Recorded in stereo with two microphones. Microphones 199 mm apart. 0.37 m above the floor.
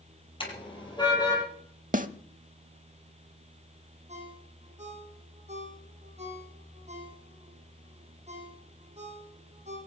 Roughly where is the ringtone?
Right.